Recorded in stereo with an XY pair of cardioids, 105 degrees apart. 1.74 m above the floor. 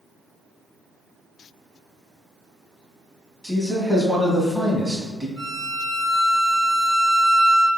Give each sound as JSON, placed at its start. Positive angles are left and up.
{"t": 3.4, "sound": "a man speaking", "azimuth_deg": -20, "distance_m": 1.3}
{"t": 5.4, "sound": "a violin", "azimuth_deg": -15, "distance_m": 1.1}